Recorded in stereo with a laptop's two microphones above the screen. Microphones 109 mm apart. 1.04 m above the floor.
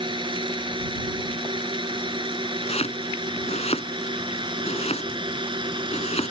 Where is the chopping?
75° left (ahead or behind).